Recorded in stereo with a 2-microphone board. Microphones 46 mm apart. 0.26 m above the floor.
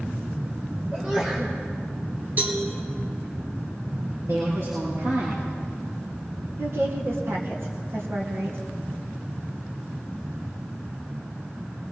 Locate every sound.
0.9 s a sneeze: 35° right (ahead or behind), 2.5 m
2.4 s a cowbell: 40° right (ahead or behind), 3.5 m
4.3 s a woman speaking: 75° right (ahead or behind), 5 m
6.6 s a woman speaking: 70° right (ahead or behind), 2.5 m